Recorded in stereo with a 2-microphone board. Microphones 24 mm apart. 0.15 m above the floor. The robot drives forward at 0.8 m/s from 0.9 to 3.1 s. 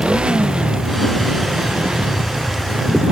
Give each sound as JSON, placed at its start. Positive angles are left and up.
{"t": 0.0, "sound": "a motorcycle", "side_deg": -45}